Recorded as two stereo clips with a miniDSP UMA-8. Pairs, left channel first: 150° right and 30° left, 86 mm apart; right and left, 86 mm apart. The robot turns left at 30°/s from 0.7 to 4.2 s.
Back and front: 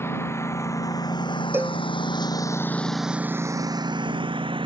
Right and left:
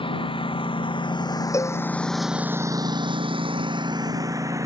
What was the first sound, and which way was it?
A lawn mower, 90° right.